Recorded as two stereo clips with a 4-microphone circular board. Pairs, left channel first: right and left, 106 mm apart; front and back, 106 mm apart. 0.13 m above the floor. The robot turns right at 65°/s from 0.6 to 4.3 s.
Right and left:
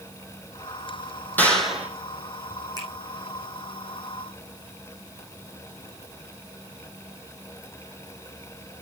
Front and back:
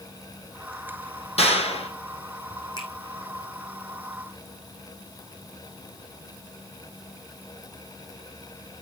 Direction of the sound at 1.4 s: 20° right.